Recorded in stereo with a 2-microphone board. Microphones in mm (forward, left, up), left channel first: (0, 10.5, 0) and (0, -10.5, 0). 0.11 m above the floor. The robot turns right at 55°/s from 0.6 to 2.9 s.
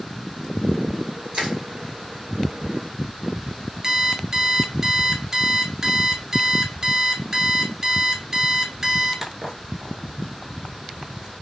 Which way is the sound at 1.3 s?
45° right (ahead or behind).